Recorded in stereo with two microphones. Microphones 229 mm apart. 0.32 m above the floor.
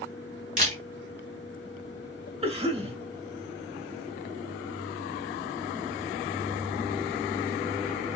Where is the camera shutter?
30° right (ahead or behind), 2.5 m.